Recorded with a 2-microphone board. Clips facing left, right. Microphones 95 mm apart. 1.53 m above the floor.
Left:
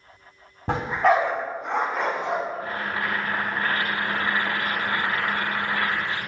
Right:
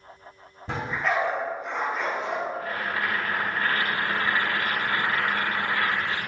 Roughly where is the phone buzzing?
No phone buzzing in this recording.